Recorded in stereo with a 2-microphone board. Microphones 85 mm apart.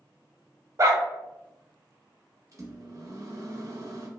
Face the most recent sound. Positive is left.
turn(degrees=-40)  # may be behind; listen again after turning